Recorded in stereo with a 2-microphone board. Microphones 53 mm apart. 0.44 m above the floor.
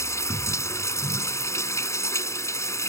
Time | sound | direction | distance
0.0 | running water | 65° left (ahead or behind) | ?